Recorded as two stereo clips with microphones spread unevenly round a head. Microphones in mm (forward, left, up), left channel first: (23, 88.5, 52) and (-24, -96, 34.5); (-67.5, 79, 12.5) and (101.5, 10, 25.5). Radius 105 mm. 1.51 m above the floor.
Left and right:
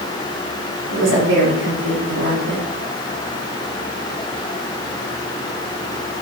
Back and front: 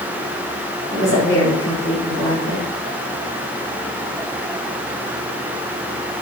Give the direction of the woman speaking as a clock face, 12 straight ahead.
4 o'clock.